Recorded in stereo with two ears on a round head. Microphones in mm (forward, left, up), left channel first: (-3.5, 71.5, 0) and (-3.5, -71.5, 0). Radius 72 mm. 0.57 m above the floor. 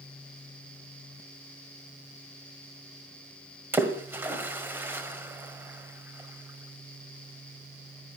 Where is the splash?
15° right (ahead or behind), 1.8 m.